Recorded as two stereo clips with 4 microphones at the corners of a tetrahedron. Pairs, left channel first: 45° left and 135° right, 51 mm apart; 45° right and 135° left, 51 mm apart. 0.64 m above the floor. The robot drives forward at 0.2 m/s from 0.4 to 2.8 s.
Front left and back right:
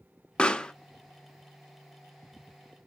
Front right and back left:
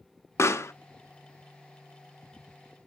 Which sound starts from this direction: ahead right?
A pop, at 0.4 s.